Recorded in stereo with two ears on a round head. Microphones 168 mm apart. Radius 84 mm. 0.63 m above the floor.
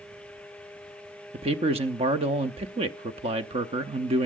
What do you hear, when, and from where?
1.3 s a man speaking: 30° right (ahead or behind), 0.8 m